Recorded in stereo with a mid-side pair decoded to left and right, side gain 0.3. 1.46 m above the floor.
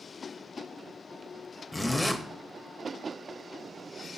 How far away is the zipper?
About 0.7 m.